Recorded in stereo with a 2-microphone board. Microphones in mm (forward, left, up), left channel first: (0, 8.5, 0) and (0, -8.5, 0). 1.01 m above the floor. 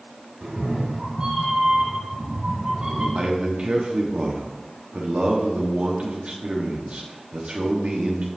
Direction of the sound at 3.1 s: 75° right (ahead or behind).